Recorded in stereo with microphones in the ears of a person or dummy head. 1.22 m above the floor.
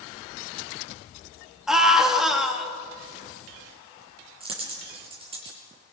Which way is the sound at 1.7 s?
Centre (ahead or behind).